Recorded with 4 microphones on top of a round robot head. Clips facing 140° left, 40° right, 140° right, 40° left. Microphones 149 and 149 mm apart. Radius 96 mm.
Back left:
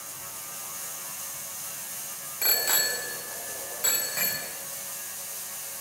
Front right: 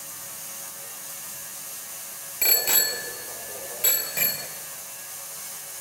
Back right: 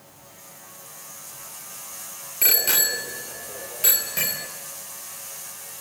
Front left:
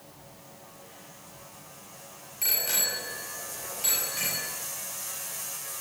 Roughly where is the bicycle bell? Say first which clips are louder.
Front right 2 dB, back right 7 dB; behind right.